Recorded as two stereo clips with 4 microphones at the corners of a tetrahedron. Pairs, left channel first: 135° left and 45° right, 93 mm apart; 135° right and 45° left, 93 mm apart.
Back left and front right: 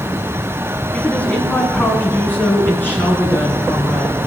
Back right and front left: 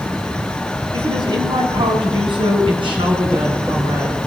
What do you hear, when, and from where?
0.9 s a woman speaking: 65° left, 2 m